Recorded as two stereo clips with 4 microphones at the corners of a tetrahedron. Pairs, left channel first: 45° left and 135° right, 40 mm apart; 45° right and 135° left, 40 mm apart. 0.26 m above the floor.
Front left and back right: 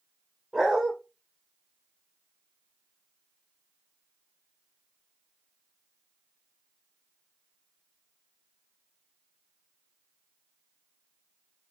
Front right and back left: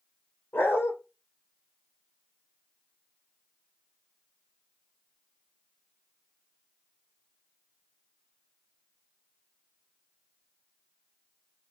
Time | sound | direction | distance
0.5 | a dog barking | 60° right | 3 m